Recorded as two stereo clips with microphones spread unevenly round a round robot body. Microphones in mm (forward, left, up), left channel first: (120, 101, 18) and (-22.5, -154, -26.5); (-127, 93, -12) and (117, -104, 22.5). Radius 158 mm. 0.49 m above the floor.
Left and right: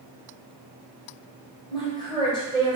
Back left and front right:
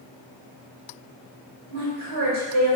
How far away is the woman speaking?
About 1.4 m.